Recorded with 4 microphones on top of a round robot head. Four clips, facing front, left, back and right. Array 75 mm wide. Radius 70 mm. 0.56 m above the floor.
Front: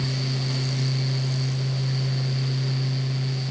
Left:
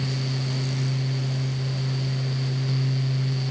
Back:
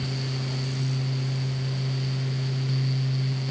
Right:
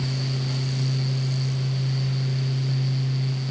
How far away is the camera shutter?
No camera shutter in this recording.